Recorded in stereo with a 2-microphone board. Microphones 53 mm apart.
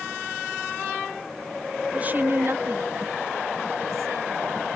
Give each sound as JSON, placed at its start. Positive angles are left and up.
{"t": 1.9, "sound": "a woman speaking", "side_deg": -20}